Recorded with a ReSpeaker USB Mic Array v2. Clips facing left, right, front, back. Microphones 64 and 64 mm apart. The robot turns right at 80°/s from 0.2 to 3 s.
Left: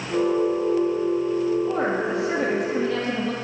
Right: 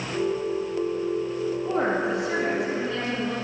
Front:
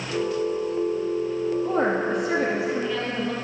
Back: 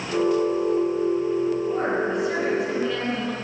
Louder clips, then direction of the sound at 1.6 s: Left 1 dB, front 1 dB; 15° right.